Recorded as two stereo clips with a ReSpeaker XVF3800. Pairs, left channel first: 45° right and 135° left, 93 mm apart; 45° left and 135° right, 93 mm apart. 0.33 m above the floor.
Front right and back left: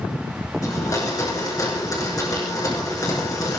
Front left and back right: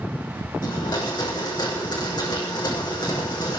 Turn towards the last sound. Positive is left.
turn(degrees=5)